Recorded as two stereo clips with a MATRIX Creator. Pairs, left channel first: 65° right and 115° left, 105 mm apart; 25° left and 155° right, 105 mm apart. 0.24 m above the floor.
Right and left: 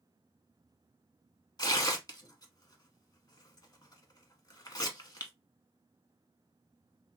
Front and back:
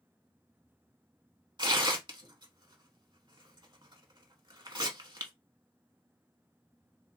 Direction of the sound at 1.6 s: 115° right.